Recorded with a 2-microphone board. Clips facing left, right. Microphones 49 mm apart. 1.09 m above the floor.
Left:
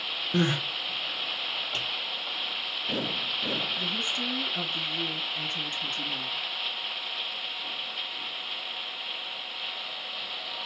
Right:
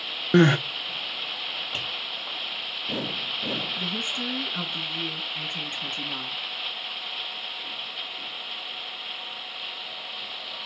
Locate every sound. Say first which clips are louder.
0.3 s crying: right 9 dB; 55° right (ahead or behind), 0.5 m
1.7 s tapping: right 1 dB; 10° right (ahead or behind), 2 m
3.8 s a woman speaking: right 1 dB; 30° right (ahead or behind), 1.5 m